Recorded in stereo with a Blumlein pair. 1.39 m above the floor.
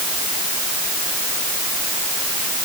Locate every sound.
Only background noise.